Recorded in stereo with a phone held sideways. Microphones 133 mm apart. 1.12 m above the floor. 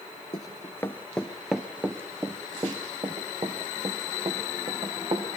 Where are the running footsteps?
30° left (ahead or behind), 1.2 m; by 5.3 s 45° right (ahead or behind), 3.5 m.